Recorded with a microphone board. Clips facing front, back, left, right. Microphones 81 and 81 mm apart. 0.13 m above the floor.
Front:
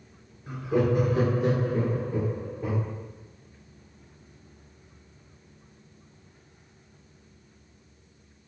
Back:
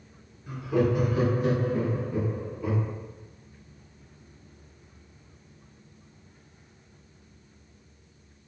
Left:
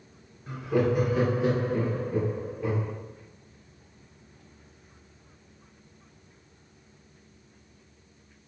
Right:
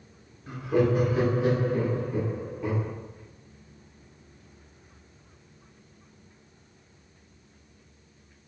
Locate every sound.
0.5 s laughter: 5° left, 2 m; by 2.9 s 35° left, 3.5 m